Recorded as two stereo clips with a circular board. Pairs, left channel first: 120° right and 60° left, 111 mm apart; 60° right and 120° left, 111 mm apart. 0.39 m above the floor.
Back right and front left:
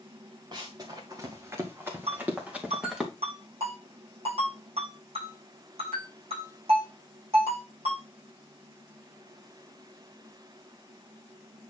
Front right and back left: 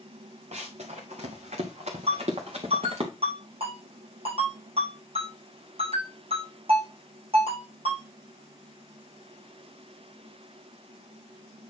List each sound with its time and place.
0.5 s running footsteps: 110° left, 2.5 m; by 3.1 s 145° left, 2.5 m
2.1 s a ringtone: 90° left, 7.5 m